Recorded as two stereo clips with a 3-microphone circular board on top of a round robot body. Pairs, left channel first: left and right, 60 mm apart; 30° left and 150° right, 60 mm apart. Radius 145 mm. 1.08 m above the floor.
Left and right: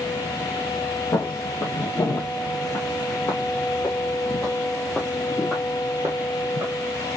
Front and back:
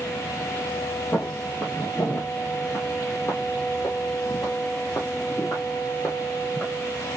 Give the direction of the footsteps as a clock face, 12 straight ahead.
9 o'clock.